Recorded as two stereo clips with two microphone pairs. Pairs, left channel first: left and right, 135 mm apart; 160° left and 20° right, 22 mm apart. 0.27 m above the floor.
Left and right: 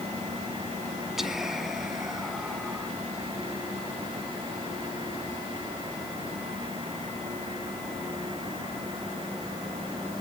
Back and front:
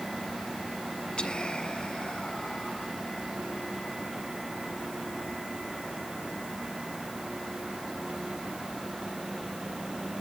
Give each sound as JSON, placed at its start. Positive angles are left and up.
{"t": 1.2, "sound": "whispering", "azimuth_deg": -175, "distance_m": 2.0}